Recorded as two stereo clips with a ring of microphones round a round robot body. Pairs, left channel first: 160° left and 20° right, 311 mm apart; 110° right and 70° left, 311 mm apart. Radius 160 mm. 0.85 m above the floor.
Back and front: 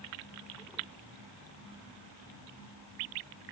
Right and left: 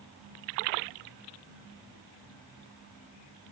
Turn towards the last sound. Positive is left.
No sound to turn to.